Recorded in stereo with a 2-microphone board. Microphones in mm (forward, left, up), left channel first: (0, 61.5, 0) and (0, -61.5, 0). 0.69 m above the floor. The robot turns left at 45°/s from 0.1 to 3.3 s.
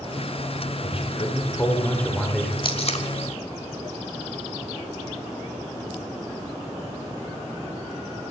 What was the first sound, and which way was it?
A man speaking, 65° left.